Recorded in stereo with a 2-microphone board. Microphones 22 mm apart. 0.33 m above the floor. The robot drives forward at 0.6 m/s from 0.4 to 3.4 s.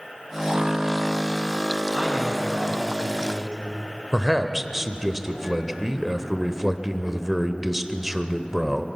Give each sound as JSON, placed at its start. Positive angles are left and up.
{"t": 1.9, "sound": "a man speaking", "side_deg": -50, "distance_m": 8.0}
{"t": 4.1, "sound": "a man speaking", "side_deg": -10, "distance_m": 1.1}